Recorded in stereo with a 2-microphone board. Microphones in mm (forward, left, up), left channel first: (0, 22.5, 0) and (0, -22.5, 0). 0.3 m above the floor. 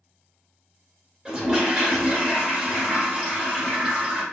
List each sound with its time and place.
1.2 s a toilet flushing: 20° right (ahead or behind), 1.5 m